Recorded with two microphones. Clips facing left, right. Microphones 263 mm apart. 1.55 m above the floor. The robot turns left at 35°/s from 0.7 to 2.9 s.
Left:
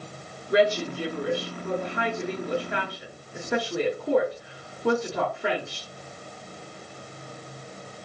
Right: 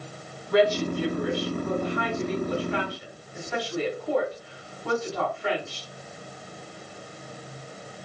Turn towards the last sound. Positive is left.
turn(degrees=80)